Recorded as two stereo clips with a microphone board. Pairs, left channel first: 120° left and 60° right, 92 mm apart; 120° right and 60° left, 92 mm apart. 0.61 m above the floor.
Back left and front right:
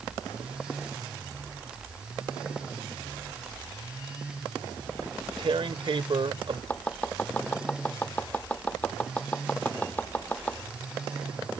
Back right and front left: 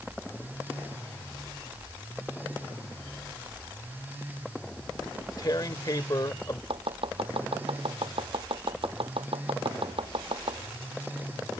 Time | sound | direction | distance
5.0 | tearing paper | 75° right | ?
6.7 | chopping | 45° left | ?